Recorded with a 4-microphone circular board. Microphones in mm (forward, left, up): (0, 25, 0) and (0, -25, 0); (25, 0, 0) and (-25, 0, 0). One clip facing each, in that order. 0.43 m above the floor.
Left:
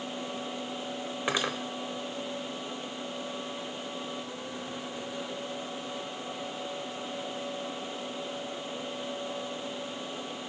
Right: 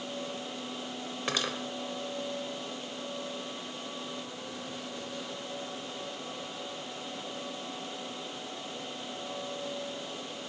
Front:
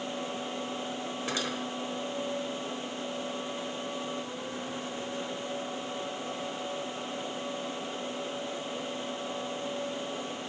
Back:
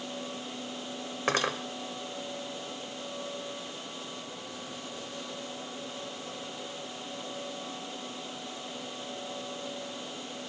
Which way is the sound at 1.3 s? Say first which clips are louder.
Left 3 dB, back 7 dB; 160° left.